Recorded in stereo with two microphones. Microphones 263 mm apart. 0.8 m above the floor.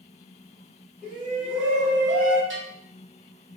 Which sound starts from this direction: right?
A bell, at 2.5 s.